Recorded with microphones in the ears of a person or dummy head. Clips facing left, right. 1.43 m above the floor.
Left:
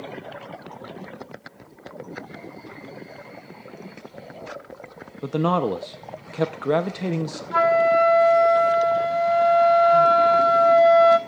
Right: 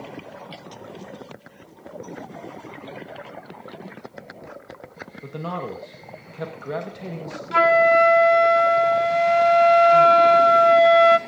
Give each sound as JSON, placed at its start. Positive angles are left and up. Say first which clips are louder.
{"t": 5.2, "sound": "a man speaking", "louder": "left 9 dB", "side_deg": 80, "distance_m": 0.7}
{"t": 7.5, "sound": "a flute", "louder": "right 2 dB", "side_deg": -30, "distance_m": 0.6}